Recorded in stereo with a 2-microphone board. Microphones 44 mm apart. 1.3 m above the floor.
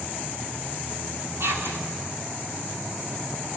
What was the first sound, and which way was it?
Whispering, 75° right (ahead or behind).